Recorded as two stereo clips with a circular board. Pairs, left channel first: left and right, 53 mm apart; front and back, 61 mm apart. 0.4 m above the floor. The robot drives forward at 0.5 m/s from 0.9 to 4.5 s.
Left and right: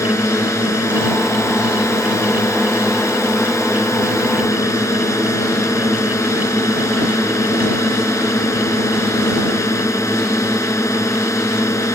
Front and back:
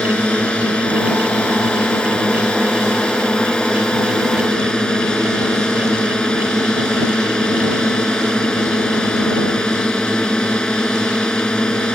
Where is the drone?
75° left.